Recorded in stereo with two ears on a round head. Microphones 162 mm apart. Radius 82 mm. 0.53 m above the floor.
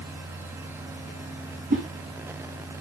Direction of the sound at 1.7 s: 50° right (ahead or behind).